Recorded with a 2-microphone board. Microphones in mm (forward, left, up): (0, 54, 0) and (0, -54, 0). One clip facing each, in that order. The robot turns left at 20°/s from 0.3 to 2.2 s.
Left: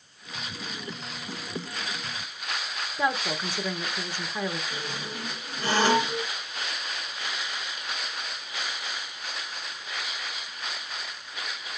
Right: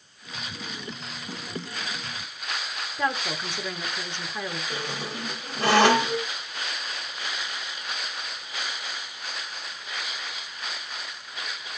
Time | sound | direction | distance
3.0 | a woman speaking | 10° left (ahead or behind) | 1.4 m
4.7 | a squeak | 80° right | 1.4 m